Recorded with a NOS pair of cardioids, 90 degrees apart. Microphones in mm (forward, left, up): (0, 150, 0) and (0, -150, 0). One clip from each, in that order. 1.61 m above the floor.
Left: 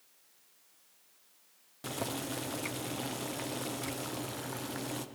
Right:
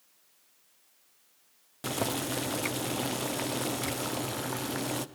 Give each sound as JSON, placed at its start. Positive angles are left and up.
{"t": 1.8, "sound": "boiling", "azimuth_deg": -30, "distance_m": 0.6}